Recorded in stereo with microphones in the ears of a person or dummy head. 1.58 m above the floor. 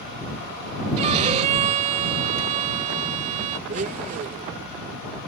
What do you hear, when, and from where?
1.0 s a violin: 35° right (ahead or behind)
3.7 s a blender: 40° right (ahead or behind)